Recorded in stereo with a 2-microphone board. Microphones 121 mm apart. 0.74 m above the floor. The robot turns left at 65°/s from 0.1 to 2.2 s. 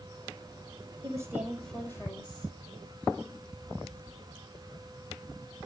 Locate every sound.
1.0 s a woman speaking: 145° right, 4 m; by 2.5 s 140° left, 4 m